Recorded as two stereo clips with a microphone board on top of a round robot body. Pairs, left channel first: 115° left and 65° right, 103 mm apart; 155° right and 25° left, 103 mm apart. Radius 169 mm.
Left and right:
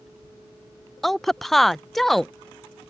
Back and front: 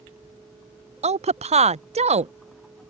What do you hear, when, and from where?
1.0 s a woman speaking: 25° left